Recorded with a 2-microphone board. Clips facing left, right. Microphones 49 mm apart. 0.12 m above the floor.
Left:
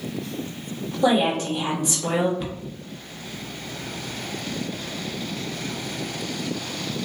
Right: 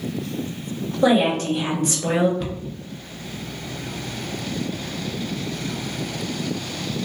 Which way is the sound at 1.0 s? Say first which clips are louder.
Right 2 dB; 45° right (ahead or behind).